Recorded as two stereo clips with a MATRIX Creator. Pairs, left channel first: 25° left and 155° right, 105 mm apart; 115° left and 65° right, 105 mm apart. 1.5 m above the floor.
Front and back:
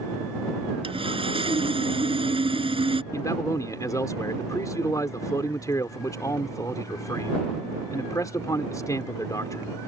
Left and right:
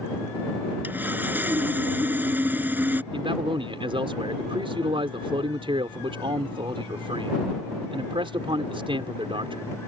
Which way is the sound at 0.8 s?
140° right.